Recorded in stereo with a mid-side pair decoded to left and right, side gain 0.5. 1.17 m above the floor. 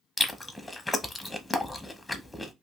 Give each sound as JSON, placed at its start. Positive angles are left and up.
{"t": 0.2, "sound": "chewing", "azimuth_deg": 15, "distance_m": 0.7}